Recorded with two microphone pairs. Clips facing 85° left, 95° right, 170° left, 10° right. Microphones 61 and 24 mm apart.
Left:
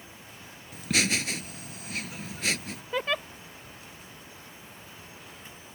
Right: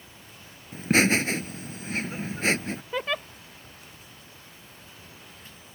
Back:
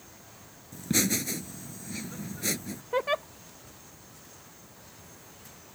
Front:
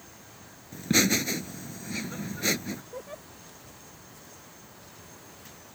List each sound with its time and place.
0.7 s laughter: 65° right
2.9 s a giggle: 175° left